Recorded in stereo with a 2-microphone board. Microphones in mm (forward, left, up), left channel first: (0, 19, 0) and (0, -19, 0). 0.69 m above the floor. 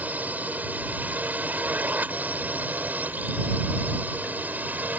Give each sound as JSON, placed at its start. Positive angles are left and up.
{"t": 0.0, "sound": "a drone", "side_deg": -45}